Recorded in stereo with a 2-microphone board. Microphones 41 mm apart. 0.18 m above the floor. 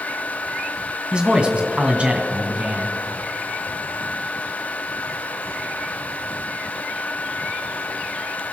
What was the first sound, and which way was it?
A man speaking, 25° right (ahead or behind).